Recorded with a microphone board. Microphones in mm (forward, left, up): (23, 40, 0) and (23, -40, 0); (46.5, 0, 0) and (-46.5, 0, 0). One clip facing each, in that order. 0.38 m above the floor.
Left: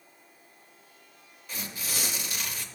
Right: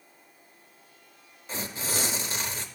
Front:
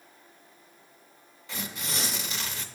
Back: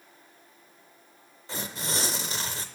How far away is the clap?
No clap in this recording.